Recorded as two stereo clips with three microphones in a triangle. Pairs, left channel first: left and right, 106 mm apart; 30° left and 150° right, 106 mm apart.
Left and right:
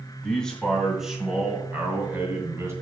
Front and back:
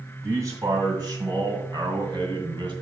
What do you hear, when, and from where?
0.2 s a man speaking: 165° left, 2 m; by 2.7 s 145° right, 2.5 m